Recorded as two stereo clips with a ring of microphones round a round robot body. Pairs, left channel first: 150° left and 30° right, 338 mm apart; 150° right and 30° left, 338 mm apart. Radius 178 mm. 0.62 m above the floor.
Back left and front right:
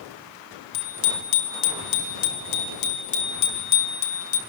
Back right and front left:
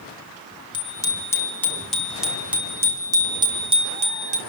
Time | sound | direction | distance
0.7 | a bicycle bell | 135° left | 4.5 m